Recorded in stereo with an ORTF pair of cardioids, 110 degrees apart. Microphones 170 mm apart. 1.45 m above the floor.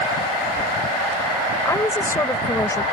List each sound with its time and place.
1.6 s a woman speaking: 15° left